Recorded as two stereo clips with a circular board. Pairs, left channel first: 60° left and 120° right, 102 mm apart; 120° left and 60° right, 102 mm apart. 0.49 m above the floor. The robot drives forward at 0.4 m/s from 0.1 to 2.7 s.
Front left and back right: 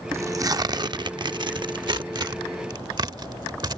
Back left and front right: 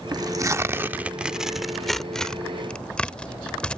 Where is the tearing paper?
75° right; by 3.8 s 160° right.